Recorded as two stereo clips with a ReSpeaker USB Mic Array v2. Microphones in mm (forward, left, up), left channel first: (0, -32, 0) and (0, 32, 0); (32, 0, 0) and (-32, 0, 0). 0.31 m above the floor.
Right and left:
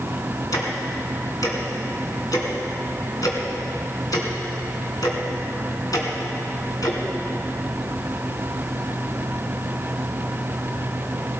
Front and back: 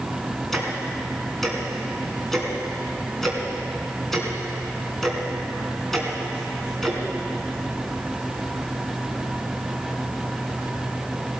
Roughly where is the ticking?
Right.